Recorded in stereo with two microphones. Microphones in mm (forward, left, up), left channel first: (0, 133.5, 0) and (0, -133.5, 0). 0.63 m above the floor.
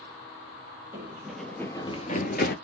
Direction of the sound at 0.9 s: 10° right (ahead or behind).